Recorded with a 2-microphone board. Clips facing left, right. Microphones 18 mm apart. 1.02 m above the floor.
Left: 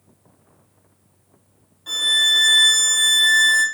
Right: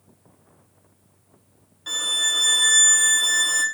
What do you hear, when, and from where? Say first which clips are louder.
1.9 s a violin: left 6 dB; 25° right (ahead or behind), 0.6 m